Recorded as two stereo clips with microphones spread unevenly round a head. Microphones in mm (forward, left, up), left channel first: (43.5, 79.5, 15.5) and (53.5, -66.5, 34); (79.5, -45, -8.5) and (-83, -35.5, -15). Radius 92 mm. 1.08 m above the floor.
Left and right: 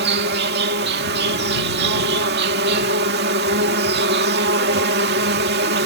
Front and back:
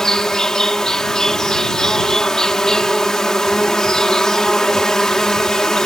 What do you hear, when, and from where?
0.0 s an insect: 90° right